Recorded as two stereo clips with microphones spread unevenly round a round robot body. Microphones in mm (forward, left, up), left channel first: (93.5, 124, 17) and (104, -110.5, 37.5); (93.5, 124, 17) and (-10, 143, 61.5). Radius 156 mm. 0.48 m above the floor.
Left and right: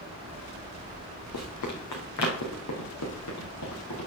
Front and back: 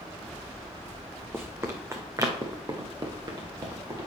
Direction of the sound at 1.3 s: 110° left.